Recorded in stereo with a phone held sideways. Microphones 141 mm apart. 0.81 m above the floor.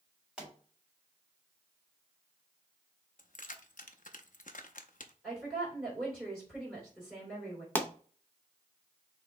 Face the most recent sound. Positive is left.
turn(degrees=15)  # may be behind; listen again after turning